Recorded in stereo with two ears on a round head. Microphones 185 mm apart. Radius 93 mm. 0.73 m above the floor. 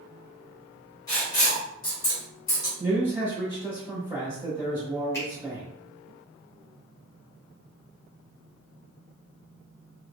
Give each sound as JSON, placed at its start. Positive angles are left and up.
{"t": 1.1, "sound": "writing", "side_deg": 20, "distance_m": 1.5}
{"t": 2.8, "sound": "a man speaking", "side_deg": -10, "distance_m": 1.5}
{"t": 5.1, "sound": "a finger snap", "side_deg": 15, "distance_m": 1.1}